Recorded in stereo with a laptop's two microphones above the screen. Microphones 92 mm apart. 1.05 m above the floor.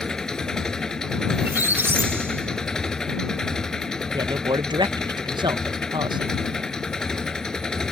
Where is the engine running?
5° left (ahead or behind).